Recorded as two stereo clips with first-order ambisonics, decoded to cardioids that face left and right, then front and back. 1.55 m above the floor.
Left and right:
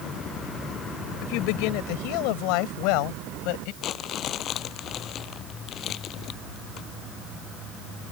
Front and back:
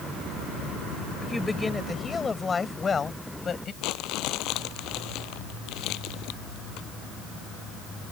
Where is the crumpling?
35° left.